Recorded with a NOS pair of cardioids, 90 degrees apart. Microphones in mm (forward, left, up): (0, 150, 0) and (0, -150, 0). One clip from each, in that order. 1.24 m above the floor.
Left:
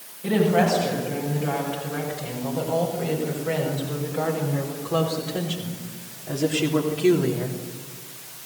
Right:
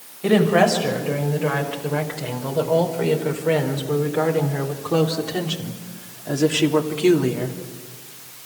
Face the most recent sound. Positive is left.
turn(degrees=-35)